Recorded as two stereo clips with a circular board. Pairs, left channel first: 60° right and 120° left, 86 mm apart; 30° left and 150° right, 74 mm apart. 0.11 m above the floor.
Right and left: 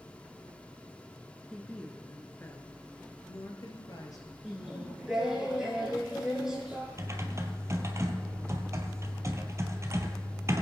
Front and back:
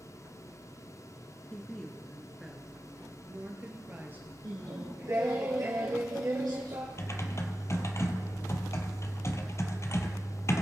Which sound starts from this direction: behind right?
Singing, at 4.4 s.